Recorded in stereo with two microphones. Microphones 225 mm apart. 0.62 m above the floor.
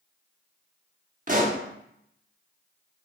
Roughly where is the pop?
Right.